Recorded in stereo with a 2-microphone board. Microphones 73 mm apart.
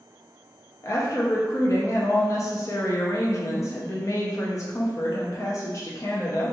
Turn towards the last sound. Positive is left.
turn(degrees=45)  # may be behind; listen again after turning